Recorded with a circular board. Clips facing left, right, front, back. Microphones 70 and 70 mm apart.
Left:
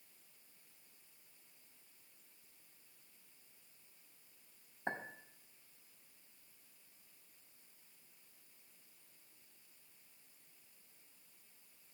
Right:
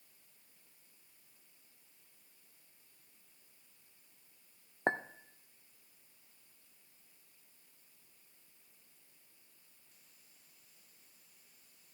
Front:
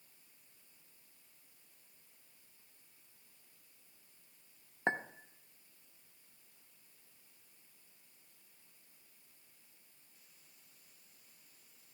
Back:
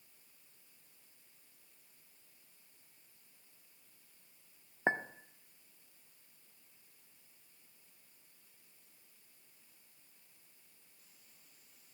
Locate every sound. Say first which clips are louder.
4.9 s a clink: right 8 dB, back 2 dB; 105° right, 0.5 m